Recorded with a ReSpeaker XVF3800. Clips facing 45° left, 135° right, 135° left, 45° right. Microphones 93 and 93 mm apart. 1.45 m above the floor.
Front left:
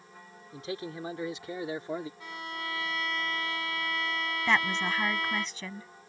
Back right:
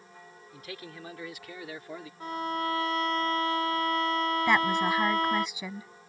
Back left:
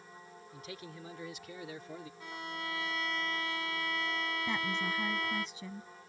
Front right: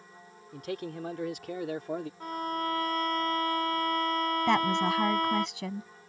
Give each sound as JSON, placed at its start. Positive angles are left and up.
{"t": 0.5, "sound": "a man speaking", "azimuth_deg": -20}
{"t": 2.2, "sound": "a violin", "azimuth_deg": -85}
{"t": 4.5, "sound": "a woman speaking", "azimuth_deg": -55}